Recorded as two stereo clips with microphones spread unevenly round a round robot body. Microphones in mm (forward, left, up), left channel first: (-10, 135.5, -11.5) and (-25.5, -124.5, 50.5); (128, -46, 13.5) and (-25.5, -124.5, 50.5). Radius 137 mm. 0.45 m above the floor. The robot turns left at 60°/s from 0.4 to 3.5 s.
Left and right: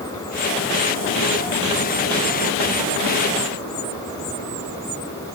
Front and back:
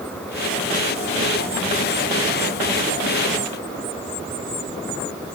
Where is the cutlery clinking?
I don't hear cutlery clinking.